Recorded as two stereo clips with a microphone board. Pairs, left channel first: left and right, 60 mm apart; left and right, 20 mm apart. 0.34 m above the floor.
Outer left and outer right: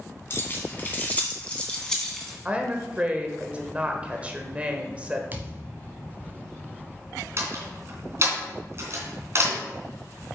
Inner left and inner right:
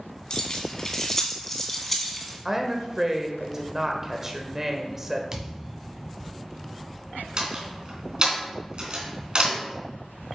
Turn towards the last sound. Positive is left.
turn(degrees=-50)  # may be behind; listen again after turning